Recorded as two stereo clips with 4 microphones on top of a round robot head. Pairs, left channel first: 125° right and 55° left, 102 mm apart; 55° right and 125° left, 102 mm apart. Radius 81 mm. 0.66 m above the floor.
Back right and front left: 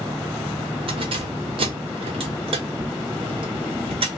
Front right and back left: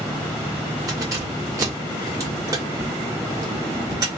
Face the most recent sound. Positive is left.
turn(degrees=75)